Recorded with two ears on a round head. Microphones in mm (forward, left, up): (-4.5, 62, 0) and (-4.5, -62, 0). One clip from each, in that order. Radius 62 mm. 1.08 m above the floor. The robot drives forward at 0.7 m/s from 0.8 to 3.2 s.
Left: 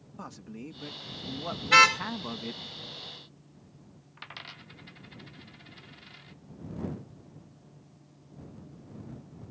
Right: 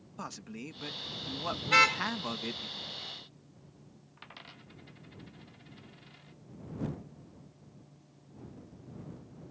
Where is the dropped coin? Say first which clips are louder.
Left 7 dB; 40° left (ahead or behind).